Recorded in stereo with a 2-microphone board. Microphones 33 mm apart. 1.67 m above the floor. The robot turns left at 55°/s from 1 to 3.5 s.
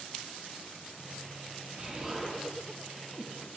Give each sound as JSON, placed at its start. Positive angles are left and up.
{"t": 1.8, "sound": "an explosion", "side_deg": -40, "distance_m": 2.0}